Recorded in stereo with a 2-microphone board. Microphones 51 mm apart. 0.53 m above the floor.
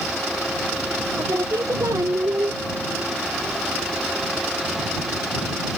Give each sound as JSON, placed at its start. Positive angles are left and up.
{"t": 1.2, "sound": "singing", "side_deg": -75}